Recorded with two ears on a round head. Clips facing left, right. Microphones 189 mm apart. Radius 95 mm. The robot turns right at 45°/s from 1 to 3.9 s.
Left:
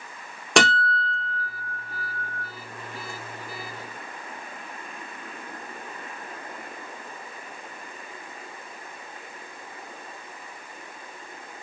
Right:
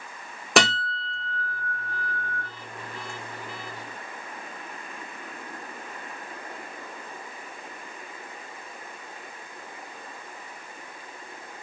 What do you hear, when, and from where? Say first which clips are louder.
0.6 s a guitar: left 1 dB; centre (ahead or behind), 1.5 m; by 2.4 s 25° left (ahead or behind), 1.5 m